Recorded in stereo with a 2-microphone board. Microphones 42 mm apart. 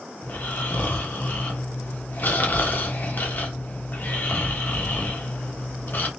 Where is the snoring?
50° left (ahead or behind), 1.0 m.